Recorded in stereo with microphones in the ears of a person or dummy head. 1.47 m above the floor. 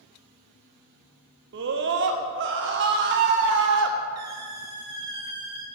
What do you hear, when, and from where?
1.5 s a scream: 50° right (ahead or behind), 0.7 m
4.2 s a squeak: 15° right (ahead or behind), 0.5 m